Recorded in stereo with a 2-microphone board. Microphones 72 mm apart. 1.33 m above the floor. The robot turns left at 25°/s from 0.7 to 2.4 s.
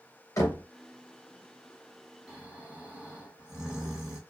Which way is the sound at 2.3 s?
5° right (ahead or behind).